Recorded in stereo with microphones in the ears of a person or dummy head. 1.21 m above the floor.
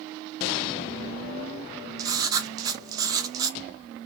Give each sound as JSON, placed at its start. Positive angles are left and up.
{"t": 2.0, "sound": "writing", "side_deg": -20, "distance_m": 0.7}